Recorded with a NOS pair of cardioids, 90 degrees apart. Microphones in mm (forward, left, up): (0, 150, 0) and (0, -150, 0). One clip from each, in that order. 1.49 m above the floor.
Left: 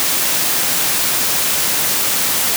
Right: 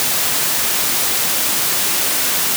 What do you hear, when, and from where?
Only background noise.